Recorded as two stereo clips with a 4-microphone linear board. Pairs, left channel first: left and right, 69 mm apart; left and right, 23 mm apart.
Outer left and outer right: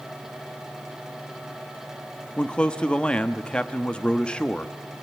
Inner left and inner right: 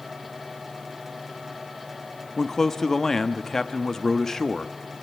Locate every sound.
2.4 s a man speaking: 15° left (ahead or behind), 1.2 m